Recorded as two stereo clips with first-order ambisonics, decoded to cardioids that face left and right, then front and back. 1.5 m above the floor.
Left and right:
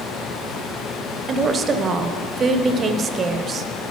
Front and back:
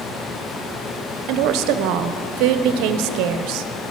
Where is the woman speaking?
160° right, 0.7 m.